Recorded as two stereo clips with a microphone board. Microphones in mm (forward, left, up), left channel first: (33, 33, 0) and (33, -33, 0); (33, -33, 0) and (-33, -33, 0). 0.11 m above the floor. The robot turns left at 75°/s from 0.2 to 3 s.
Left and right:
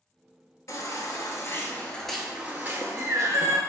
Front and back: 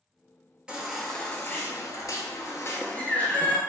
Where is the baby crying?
110° left, 0.6 m; by 3.6 s 65° right, 0.6 m.